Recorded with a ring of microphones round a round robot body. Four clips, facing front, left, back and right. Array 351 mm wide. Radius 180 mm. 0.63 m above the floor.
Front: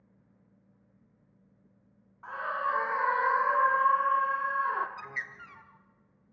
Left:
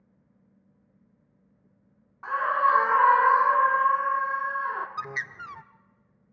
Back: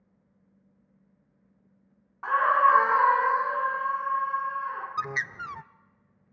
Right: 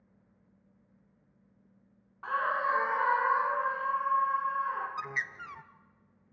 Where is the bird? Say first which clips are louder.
Left 3 dB, back 10 dB; 160° left, 0.7 m.